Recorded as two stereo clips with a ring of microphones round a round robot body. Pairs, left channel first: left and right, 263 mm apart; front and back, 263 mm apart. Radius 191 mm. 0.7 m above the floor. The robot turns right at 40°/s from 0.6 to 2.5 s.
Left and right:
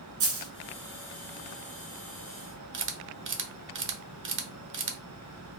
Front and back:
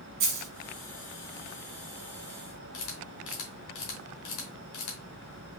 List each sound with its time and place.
0.2 s a dropped coin: 125° right, 1.3 m
2.7 s a camera shutter: 45° right, 1.0 m